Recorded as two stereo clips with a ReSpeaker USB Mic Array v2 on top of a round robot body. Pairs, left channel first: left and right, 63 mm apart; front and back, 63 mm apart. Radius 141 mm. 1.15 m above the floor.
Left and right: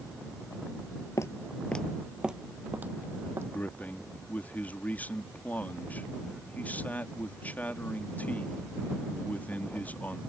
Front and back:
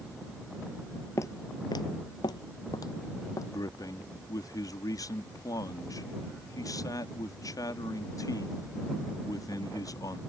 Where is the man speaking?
25° left.